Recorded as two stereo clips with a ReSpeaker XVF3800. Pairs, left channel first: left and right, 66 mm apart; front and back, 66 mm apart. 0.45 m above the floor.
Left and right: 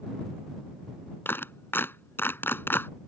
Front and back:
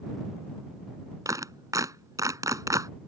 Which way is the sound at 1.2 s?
145° left.